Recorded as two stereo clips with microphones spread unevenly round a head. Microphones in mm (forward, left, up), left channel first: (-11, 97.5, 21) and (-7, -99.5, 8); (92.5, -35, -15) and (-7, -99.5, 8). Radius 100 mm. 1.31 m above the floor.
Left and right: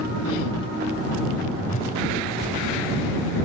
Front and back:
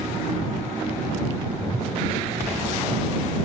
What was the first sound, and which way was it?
A whoosh, 140° left.